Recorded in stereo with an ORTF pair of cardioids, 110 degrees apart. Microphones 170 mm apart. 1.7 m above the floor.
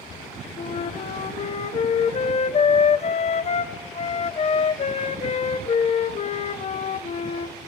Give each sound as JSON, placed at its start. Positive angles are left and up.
{"t": 0.6, "sound": "a flute", "azimuth_deg": 40, "distance_m": 1.6}